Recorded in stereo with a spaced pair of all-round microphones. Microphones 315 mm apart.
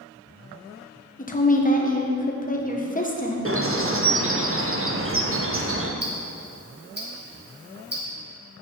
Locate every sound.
1.2 s a woman speaking: 25° left (ahead or behind), 1.1 m
3.5 s a bird: 45° right (ahead or behind), 0.7 m
6.0 s ticking: 30° right (ahead or behind), 1.7 m